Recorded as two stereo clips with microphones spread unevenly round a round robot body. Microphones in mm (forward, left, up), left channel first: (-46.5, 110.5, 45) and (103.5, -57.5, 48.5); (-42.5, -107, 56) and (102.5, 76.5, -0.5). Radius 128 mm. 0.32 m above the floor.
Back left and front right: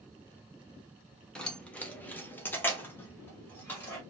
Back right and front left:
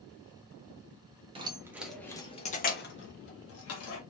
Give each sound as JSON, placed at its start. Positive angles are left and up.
{"t": 1.4, "sound": "keys jangling", "azimuth_deg": 50, "distance_m": 0.7}